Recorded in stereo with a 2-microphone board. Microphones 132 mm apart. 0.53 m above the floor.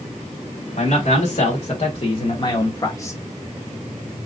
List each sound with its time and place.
0.8 s a man speaking: 60° left (ahead or behind), 2.0 m; by 3.2 s 20° left (ahead or behind), 0.9 m